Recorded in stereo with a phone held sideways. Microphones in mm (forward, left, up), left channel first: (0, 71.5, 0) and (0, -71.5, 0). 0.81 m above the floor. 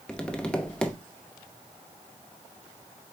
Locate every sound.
0.1 s tapping: 5° left (ahead or behind), 0.9 m